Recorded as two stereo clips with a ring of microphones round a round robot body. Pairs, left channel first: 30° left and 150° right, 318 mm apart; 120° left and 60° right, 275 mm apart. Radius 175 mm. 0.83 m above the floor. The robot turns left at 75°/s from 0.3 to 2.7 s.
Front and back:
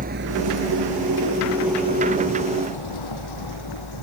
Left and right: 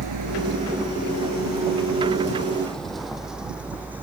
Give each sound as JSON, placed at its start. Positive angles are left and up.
{"t": 0.0, "sound": "a vehicle", "azimuth_deg": -85}